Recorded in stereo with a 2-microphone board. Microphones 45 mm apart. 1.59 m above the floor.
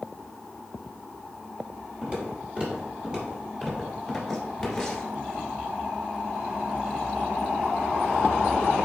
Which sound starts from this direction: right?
Footsteps, at 2.0 s.